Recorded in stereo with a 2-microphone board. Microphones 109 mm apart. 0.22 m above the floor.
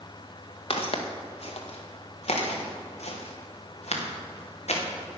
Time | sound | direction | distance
0.7 | footsteps | 65° left (ahead or behind) | 2.5 m